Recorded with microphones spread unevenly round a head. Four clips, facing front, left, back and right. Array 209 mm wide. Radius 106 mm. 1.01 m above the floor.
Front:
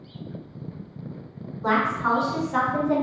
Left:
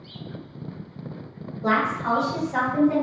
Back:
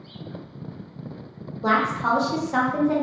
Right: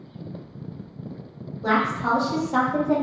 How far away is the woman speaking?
About 0.9 m.